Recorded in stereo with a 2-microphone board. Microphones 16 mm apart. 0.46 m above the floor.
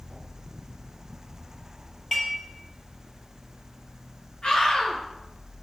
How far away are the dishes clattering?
About 7.5 m.